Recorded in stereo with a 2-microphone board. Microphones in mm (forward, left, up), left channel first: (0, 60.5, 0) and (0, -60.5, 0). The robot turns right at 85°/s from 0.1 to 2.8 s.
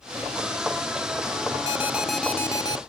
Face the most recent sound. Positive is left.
turn(degrees=60)